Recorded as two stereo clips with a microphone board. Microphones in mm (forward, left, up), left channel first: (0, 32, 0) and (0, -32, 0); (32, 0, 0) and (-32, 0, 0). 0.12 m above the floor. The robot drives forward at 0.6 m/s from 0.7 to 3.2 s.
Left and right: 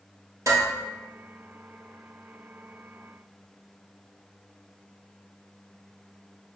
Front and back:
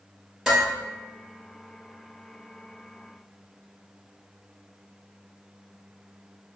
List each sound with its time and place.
0.5 s dishes clattering: 95° right, 2.0 m